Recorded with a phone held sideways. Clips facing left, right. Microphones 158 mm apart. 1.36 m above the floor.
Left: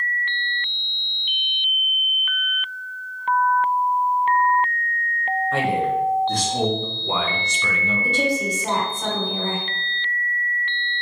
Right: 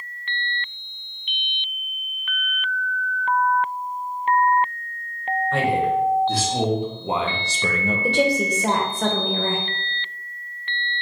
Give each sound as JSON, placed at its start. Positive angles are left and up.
{"t": 5.5, "sound": "a man speaking", "side_deg": 0, "distance_m": 1.4}
{"t": 8.0, "sound": "a woman speaking", "side_deg": -70, "distance_m": 1.0}